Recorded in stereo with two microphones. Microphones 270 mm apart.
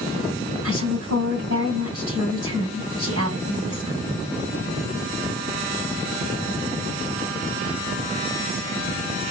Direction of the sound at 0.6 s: 60° right (ahead or behind).